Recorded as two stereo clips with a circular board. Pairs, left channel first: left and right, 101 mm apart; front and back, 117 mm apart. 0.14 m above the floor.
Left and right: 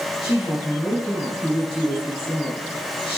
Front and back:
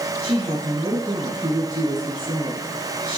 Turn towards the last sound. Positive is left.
turn(degrees=120)